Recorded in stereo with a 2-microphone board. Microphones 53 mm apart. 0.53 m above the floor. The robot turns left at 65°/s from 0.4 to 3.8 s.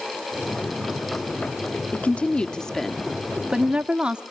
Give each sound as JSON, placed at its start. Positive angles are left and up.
{"t": 1.9, "sound": "a woman speaking", "side_deg": 25, "distance_m": 1.1}